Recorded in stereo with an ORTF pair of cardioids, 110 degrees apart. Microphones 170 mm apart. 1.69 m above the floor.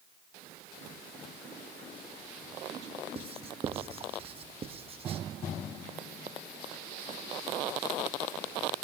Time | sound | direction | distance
3.1 | writing | 35° right | 0.9 m